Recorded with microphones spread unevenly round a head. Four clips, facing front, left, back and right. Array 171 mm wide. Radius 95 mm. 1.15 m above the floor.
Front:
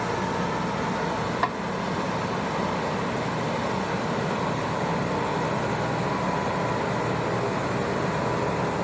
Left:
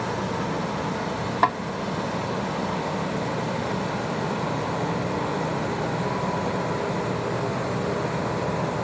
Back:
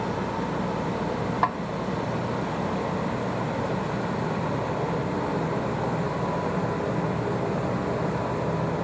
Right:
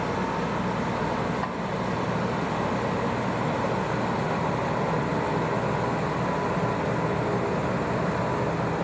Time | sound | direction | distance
1.4 | a snare drum | 85° left | ?